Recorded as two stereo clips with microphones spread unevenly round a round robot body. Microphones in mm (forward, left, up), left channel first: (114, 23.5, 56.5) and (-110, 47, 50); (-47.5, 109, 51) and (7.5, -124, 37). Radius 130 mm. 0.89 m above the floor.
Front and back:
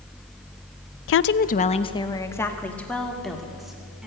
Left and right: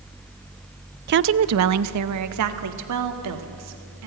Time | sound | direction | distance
1.1 | a woman speaking | 35° right | 0.5 m